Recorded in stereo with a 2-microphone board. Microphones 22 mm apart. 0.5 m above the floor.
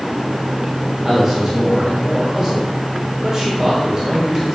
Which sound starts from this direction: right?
A man speaking, at 1.0 s.